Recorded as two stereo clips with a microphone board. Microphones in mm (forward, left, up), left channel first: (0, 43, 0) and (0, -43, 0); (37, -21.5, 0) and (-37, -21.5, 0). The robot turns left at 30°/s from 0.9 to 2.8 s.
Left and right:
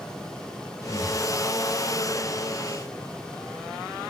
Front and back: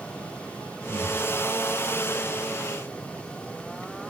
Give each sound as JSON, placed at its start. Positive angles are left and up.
{"t": 0.9, "sound": "breathing", "azimuth_deg": 130, "distance_m": 0.7}